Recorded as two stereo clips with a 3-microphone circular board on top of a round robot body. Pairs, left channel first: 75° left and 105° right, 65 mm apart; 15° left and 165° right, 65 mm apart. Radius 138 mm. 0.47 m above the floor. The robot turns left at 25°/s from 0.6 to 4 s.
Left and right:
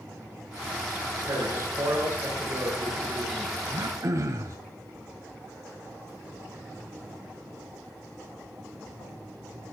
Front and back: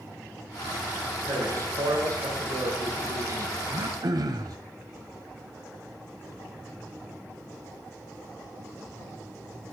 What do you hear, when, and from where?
1.3 s a man speaking: 125° right, 8 m; by 3.6 s straight behind, 8 m
3.7 s throat clearing: 140° right, 1.5 m; by 4.6 s 145° right, 1.5 m